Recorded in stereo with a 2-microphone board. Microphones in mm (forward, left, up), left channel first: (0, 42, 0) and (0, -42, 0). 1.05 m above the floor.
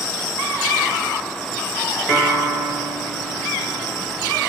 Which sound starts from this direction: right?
A piano, at 2.1 s.